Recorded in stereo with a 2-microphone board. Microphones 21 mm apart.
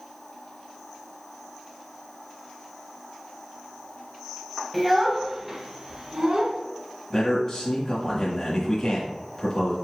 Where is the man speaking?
25° left (ahead or behind), 1.2 m.